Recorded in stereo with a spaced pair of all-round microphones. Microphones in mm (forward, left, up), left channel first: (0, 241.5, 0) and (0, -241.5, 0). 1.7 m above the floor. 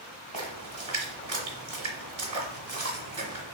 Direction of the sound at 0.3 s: 70° right (ahead or behind).